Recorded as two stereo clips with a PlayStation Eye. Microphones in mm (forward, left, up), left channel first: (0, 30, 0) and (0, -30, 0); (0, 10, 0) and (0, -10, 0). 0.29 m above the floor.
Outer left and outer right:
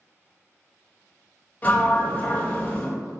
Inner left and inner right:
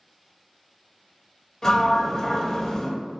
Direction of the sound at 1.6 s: 25° left (ahead or behind).